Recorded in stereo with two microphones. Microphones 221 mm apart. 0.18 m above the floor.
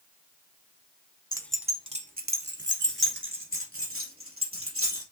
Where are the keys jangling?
20° left (ahead or behind), 0.7 m; by 5.0 s 80° right, 3 m.